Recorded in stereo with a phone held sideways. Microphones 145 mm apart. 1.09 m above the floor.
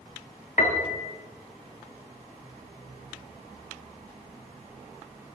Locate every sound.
0.6 s a piano: 55° left (ahead or behind), 1.1 m